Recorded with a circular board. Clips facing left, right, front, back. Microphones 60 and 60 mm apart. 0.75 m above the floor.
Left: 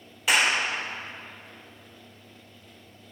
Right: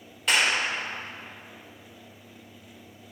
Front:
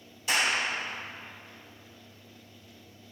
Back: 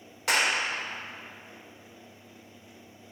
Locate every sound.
0.3 s a clap: 175° left, 2 m